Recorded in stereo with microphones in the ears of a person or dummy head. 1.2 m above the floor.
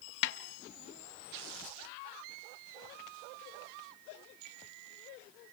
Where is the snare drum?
60° left (ahead or behind), 1.2 m.